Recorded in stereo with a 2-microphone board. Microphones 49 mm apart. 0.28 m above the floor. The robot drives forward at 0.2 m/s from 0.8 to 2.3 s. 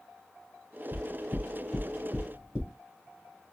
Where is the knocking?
30° left (ahead or behind), 1.1 m; by 2.7 s 35° left (ahead or behind), 1.0 m.